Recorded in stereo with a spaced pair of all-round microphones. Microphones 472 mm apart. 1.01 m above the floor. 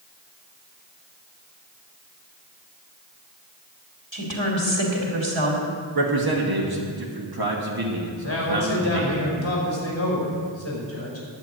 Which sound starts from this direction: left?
A man speaking, at 8.2 s.